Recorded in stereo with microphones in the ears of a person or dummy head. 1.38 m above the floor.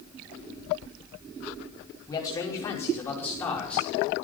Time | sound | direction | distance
2.1 | a man speaking | 25° left (ahead or behind) | 5 m